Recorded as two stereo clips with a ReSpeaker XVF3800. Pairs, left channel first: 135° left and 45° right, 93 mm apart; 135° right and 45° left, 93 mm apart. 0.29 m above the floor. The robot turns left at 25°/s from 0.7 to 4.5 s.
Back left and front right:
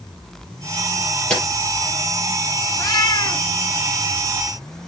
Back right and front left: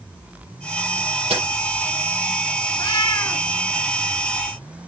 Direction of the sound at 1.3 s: 50° left.